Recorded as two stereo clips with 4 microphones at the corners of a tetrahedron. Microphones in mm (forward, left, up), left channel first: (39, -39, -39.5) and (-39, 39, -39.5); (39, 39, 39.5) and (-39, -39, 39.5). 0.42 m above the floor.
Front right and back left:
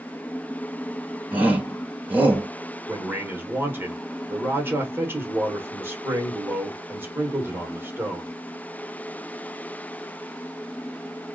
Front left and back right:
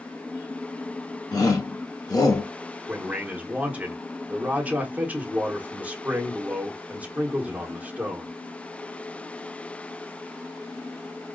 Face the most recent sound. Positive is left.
turn(degrees=165)